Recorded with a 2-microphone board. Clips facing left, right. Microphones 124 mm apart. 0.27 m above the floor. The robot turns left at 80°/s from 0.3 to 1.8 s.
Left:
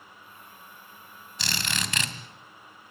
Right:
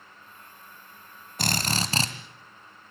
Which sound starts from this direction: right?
A drill, at 1.4 s.